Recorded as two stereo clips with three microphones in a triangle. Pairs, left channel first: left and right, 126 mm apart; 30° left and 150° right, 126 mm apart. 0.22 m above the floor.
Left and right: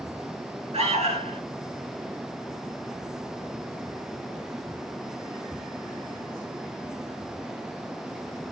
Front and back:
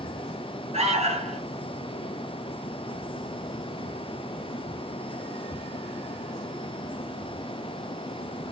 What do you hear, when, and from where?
0.7 s an alarm: 120° right, 5 m